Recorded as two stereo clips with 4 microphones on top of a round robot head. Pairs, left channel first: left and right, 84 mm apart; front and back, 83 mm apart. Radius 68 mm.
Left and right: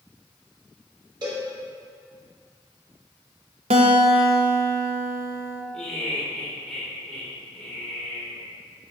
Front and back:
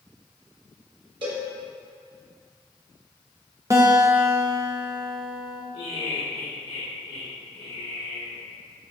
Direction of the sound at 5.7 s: 10° left.